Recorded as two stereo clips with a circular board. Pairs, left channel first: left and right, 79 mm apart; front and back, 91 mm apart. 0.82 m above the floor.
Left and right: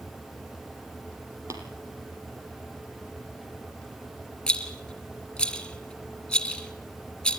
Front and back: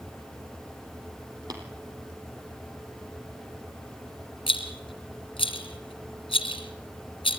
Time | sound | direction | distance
1.5 | tapping | 140° right | 4 m
4.5 | a rattle | 10° left | 3 m